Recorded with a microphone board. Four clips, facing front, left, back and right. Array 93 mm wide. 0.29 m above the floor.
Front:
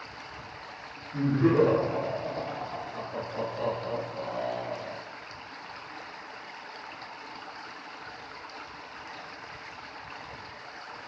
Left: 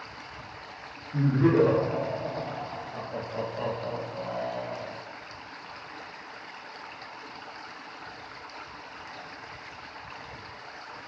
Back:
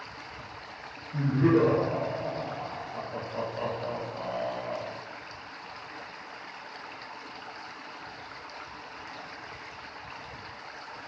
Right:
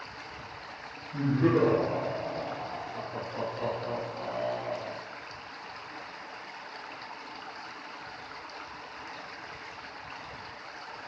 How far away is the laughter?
About 2.0 m.